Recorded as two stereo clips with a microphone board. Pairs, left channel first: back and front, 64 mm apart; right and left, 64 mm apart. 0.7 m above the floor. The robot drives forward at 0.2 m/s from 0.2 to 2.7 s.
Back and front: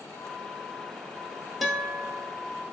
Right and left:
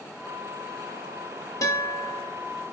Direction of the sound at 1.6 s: 90° right.